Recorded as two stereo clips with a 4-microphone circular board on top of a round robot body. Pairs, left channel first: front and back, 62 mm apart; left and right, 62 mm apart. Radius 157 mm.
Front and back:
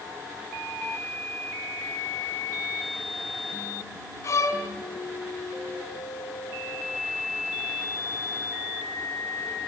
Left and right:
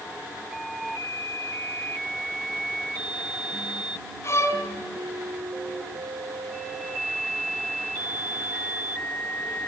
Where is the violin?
45° left, 4.5 m.